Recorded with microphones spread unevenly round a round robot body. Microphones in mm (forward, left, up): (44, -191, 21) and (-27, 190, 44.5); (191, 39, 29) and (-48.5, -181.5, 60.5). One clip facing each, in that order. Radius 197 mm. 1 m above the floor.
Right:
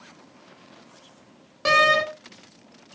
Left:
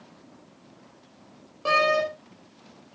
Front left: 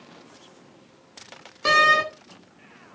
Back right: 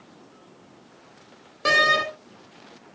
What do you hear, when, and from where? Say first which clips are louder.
1.6 s a door slam: right 1 dB, even; 35° right, 3 m